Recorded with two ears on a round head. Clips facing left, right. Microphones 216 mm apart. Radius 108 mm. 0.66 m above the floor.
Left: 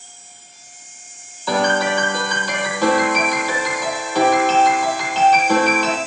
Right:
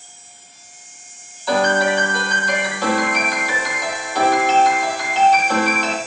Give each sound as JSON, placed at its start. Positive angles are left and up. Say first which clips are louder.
{"t": 1.5, "sound": "a piano", "louder": "right 1 dB", "side_deg": 75, "distance_m": 8.0}